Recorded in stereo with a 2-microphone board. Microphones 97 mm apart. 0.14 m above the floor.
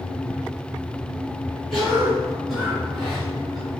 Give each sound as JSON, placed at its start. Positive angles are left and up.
{"t": 1.7, "sound": "a cough", "side_deg": 0, "distance_m": 1.8}